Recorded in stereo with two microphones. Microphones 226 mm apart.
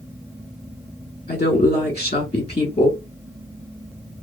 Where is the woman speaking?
30° left (ahead or behind), 1.1 m.